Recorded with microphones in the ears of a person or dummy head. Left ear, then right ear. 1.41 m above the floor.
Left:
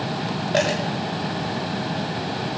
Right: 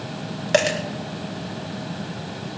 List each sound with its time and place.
0.5 s a dropped coin: 60° right (ahead or behind), 2.5 m